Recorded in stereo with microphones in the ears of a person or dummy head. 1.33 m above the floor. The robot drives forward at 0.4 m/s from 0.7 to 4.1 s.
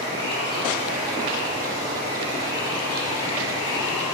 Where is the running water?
40° right (ahead or behind), 1.9 m; by 4.1 s 25° right (ahead or behind), 3 m.